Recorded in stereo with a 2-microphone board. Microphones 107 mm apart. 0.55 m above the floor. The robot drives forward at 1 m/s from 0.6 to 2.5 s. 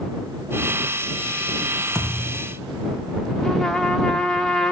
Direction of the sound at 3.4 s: Centre (ahead or behind).